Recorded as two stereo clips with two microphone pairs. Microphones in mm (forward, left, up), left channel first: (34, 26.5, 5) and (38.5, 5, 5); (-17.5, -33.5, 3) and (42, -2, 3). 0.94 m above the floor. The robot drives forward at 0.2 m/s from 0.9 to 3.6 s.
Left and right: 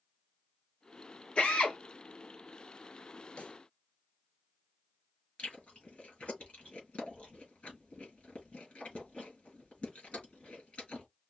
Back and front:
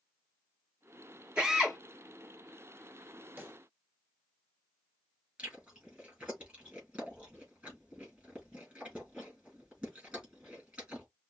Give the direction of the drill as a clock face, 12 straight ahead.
9 o'clock.